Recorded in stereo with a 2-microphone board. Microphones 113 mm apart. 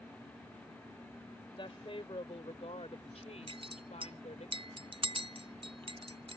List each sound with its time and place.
1.5 s a woman speaking: 50° left (ahead or behind); by 4.5 s 80° left
3.5 s a clink: 50° right (ahead or behind)